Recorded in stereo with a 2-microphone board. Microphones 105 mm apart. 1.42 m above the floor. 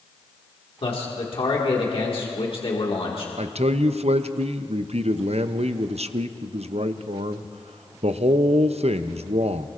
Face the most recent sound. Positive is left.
turn(degrees=-80)